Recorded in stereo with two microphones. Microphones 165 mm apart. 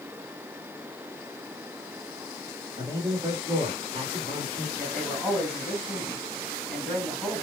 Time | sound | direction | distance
2.8 | a man speaking | 30° right (ahead or behind) | 1.5 m
4.8 | a man speaking | centre (ahead or behind) | 2.5 m